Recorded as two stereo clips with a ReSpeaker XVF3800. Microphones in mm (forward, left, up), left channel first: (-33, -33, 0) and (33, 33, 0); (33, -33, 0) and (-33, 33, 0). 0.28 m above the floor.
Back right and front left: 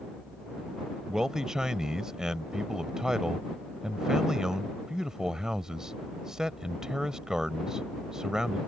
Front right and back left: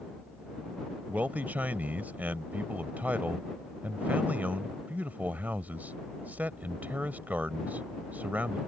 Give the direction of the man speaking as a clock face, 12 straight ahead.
8 o'clock.